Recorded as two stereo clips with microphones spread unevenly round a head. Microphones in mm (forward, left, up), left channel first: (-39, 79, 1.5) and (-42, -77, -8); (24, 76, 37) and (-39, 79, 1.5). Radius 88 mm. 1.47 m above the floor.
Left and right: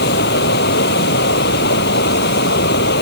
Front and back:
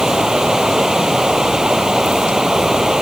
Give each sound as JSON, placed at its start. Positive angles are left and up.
{"t": 0.0, "sound": "running water", "azimuth_deg": 95}